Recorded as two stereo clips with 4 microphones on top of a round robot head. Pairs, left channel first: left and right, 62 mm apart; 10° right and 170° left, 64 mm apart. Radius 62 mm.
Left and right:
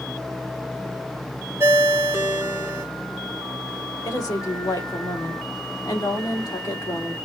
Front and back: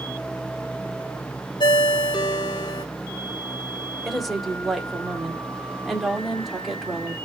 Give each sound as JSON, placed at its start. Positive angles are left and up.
{"t": 1.6, "sound": "a ringtone", "azimuth_deg": -30, "distance_m": 1.0}
{"t": 4.0, "sound": "a woman speaking", "azimuth_deg": 85, "distance_m": 3.0}